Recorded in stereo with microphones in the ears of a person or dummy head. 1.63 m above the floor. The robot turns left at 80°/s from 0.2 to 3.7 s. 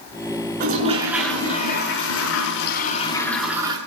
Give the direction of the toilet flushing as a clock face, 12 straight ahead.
5 o'clock.